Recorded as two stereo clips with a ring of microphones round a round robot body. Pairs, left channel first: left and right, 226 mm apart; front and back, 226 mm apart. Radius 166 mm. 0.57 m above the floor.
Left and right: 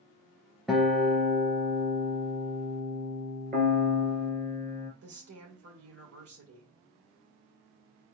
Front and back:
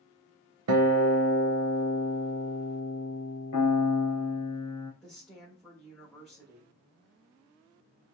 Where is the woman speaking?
90° right, 2 m.